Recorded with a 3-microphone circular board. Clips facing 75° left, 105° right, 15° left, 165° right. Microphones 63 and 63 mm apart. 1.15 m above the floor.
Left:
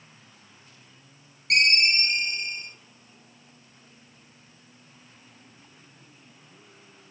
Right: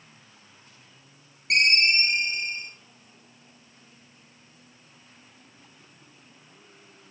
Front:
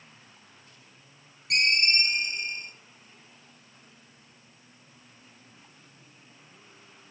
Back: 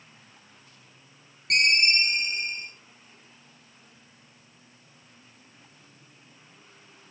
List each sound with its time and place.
1.5 s a ringtone: 165° right, 1.1 m